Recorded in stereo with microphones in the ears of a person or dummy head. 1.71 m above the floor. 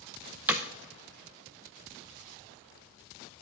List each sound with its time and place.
0.5 s hammering: 5° right (ahead or behind), 0.9 m